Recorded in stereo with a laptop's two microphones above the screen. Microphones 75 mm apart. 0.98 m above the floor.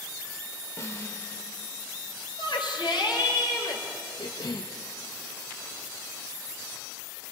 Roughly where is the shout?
Left.